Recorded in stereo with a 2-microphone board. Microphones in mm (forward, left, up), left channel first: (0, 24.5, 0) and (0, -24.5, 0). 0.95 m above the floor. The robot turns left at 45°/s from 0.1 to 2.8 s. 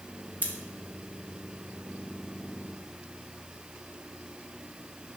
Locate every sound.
0.4 s scissors: 35° right (ahead or behind), 1.0 m; by 0.5 s 40° right (ahead or behind), 1.0 m